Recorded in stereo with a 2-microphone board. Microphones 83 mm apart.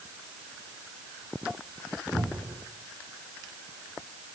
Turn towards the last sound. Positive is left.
turn(degrees=-10)  # may be behind; listen again after turning